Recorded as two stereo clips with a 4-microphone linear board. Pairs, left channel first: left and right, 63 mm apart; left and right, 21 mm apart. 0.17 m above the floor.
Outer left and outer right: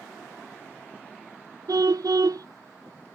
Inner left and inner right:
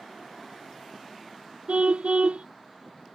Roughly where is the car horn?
Right.